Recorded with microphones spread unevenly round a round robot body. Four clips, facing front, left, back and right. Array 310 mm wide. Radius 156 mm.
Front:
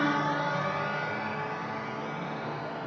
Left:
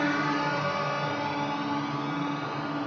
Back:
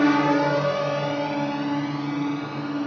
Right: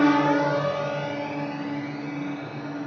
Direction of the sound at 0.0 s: 130° right.